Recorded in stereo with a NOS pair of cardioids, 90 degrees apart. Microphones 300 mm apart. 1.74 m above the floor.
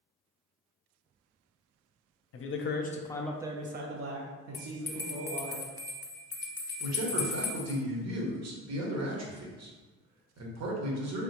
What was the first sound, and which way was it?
A man speaking, 50° left.